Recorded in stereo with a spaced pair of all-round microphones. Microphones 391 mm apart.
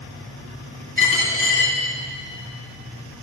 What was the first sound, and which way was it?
A dropped coin, 30° left (ahead or behind).